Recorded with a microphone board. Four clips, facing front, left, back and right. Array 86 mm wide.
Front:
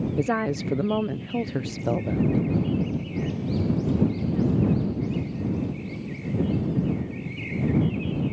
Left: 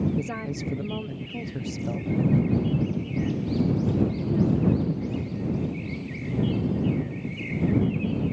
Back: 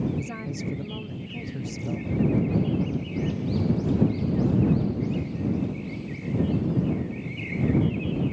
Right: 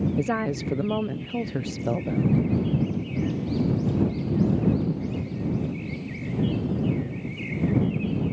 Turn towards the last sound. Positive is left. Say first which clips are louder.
# right 5 dB, front 8 dB
turn(degrees=-30)